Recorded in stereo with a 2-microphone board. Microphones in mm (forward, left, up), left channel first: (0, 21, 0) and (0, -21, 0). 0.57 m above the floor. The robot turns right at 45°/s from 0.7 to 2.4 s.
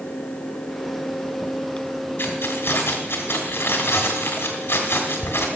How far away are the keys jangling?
About 2 m.